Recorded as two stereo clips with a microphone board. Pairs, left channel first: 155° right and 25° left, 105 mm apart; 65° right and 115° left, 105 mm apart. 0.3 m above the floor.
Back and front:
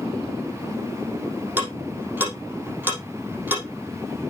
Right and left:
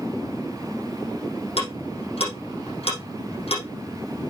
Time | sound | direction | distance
1.6 | ticking | 50° right | 5.5 m